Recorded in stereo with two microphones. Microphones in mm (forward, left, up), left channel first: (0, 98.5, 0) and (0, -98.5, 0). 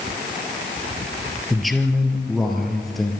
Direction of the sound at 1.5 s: Centre (ahead or behind).